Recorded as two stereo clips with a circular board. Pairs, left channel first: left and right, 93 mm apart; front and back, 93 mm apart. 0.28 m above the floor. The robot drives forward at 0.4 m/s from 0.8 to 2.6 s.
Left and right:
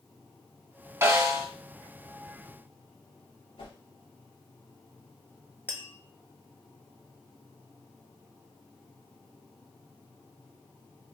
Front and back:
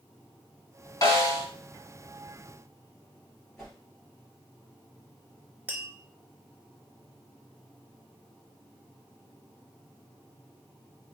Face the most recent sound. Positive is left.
turn(degrees=130)